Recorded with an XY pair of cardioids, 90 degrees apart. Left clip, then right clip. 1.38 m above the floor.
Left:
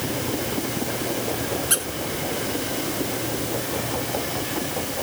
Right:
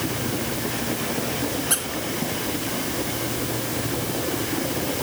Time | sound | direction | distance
1.7 | a squeak | 15° left | 1.6 m